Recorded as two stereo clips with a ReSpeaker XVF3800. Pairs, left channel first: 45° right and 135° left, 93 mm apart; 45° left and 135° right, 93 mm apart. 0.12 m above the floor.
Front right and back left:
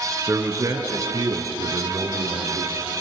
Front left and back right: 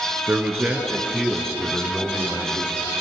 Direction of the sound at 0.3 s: 170° left.